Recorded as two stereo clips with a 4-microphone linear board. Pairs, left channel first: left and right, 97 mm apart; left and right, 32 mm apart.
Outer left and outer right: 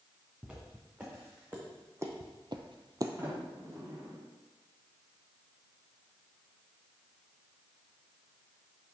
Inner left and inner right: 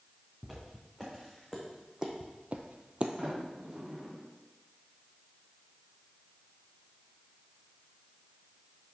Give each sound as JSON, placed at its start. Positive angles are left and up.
{"t": 0.4, "sound": "footsteps", "side_deg": -10, "distance_m": 3.0}
{"t": 3.2, "sound": "a sliding door", "side_deg": -30, "distance_m": 1.9}